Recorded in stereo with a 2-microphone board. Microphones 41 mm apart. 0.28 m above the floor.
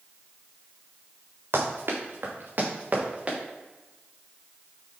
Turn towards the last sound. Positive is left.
turn(degrees=-30)  # may be behind; listen again after turning